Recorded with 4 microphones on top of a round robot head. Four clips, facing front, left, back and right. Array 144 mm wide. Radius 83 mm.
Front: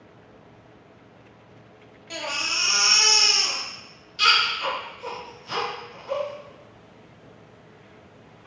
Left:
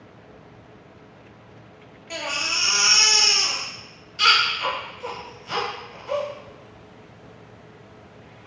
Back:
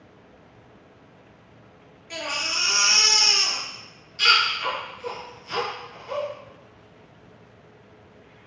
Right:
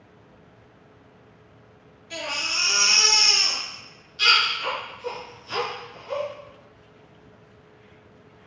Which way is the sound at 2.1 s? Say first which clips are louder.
Left 2 dB, even; 60° left.